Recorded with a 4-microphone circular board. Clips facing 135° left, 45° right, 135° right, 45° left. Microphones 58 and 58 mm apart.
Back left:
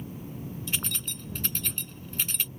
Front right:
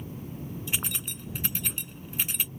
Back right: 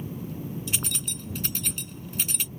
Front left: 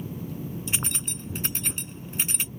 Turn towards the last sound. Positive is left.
turn(degrees=20)